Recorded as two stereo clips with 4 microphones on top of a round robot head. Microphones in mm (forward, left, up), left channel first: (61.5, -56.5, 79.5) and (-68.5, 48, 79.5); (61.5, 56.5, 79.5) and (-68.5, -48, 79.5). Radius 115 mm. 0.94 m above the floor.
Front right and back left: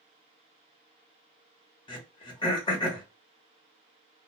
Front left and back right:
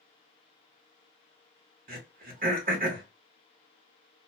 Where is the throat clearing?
105° right, 0.9 m.